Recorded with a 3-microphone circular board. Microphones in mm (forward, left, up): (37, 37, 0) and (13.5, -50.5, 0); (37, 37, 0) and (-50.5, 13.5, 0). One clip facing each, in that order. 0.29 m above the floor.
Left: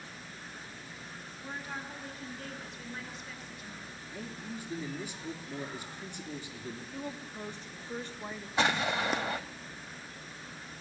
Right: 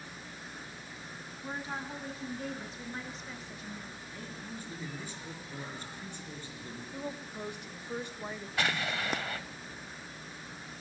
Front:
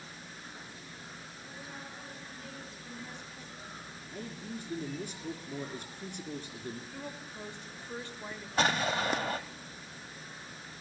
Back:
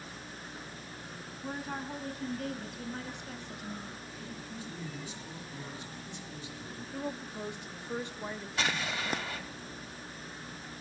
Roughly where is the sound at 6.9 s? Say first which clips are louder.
Right 4 dB, back 5 dB; behind right.